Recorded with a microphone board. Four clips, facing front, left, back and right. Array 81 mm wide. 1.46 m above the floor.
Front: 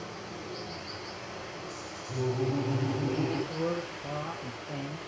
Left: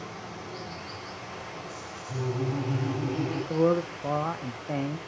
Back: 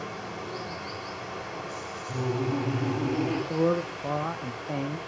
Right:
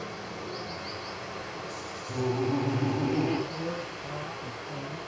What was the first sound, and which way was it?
Running water, 165° right.